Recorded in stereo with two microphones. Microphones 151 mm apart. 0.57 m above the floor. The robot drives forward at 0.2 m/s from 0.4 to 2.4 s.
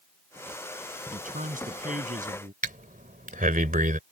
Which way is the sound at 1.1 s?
65° right (ahead or behind).